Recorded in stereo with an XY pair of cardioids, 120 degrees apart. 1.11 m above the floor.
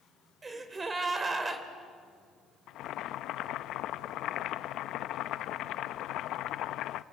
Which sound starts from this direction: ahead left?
Boiling, at 2.7 s.